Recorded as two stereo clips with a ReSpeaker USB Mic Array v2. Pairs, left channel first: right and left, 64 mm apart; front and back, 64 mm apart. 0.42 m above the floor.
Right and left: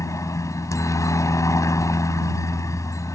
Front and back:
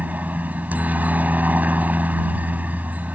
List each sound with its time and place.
0.0 s a helicopter: 115° right